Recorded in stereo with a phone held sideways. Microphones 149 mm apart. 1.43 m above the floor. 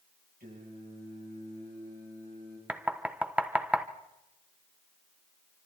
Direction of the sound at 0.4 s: 85° right.